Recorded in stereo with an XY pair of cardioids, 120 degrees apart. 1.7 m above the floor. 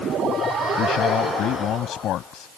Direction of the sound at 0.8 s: 65° left.